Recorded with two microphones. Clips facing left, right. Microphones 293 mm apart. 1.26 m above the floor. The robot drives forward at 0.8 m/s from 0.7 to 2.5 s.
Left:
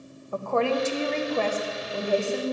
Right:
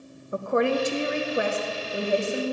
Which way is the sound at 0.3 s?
20° right (ahead or behind).